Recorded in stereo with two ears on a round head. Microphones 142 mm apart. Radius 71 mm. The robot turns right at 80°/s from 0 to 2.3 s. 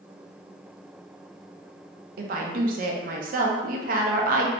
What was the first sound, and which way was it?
A woman speaking, 65° right (ahead or behind).